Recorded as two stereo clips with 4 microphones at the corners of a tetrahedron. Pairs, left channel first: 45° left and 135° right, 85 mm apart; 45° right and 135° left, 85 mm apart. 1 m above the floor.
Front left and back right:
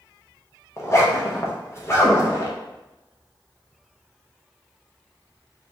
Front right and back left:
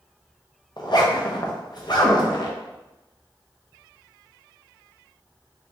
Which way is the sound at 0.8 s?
10° right.